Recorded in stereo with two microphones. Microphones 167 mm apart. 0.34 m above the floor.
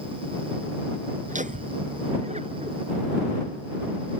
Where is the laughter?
50° right (ahead or behind); by 2.8 s 40° right (ahead or behind).